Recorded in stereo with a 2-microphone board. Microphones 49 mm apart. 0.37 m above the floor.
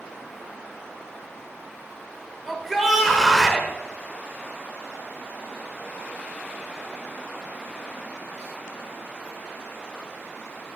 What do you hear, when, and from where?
2.5 s a shout: centre (ahead or behind), 1.5 m